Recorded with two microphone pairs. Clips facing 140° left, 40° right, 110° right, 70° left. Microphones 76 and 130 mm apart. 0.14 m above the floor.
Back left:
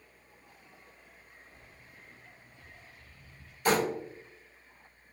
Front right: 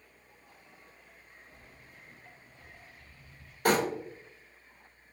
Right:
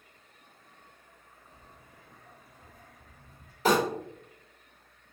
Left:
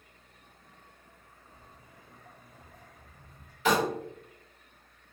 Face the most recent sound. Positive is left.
turn(degrees=-65)